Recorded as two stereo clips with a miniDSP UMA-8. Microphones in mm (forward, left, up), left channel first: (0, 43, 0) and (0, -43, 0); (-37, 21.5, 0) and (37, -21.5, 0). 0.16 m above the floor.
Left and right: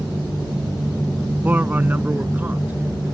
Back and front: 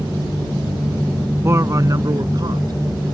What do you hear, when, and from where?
1.4 s a man speaking: 40° right; by 3.1 s 25° right